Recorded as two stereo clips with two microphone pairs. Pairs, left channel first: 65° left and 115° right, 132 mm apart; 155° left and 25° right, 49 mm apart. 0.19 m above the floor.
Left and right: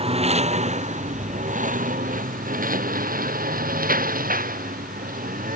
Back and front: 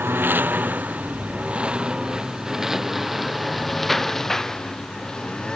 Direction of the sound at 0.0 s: 70° right.